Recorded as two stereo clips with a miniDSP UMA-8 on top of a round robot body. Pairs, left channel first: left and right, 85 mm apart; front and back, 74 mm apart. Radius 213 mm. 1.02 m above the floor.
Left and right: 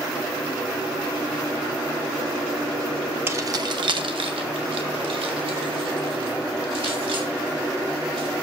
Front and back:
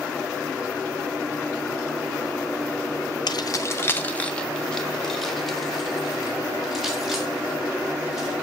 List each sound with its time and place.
3.3 s keys jangling: 25° right, 0.5 m; by 8.3 s 95° right, 4 m